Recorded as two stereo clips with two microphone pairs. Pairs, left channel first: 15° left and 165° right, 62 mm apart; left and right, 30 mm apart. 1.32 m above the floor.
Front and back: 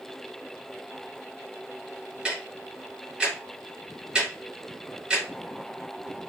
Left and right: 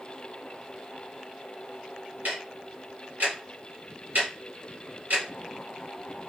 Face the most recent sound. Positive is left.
turn(degrees=-85)